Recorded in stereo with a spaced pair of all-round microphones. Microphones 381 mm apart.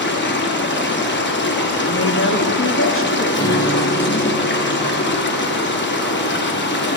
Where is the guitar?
10° left (ahead or behind), 1.4 m.